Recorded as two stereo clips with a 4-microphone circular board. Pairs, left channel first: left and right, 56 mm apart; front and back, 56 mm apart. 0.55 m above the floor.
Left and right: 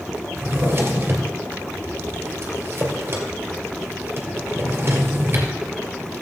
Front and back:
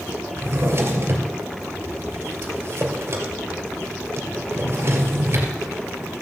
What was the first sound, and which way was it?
A drawer, 135° right.